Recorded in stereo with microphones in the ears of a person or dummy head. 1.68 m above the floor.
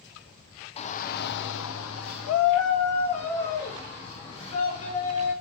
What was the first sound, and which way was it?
A shout, 35° left (ahead or behind).